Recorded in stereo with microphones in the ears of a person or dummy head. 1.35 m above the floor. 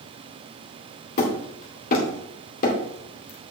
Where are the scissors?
No scissors in this recording.